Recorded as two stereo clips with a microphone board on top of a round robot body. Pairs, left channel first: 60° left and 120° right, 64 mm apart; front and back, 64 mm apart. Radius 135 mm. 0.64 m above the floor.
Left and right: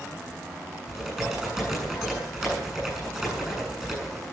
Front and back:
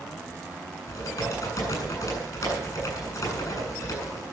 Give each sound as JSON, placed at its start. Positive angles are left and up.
{"t": 0.9, "sound": "typing on a keyboard", "azimuth_deg": -30, "distance_m": 8.0}